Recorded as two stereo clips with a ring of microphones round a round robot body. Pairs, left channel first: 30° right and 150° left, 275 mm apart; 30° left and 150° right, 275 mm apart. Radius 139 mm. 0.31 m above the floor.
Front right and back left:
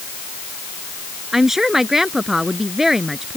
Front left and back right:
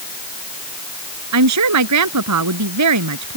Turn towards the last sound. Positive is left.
turn(degrees=-120)